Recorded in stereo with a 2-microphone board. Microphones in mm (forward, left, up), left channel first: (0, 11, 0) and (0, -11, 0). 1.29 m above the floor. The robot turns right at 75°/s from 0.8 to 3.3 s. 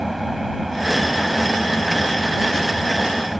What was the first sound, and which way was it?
An engine running, 5° right.